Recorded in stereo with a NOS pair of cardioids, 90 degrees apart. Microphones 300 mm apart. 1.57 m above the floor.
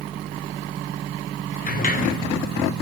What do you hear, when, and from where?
1.7 s a sliding door: 30° left, 3.5 m